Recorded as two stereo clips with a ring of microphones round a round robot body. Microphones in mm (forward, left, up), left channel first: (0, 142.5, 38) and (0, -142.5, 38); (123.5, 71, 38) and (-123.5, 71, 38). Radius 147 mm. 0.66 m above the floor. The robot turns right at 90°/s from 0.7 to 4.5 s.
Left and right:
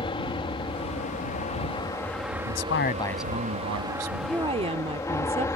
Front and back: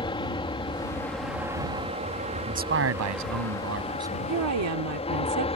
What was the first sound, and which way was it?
An aircraft, 40° left.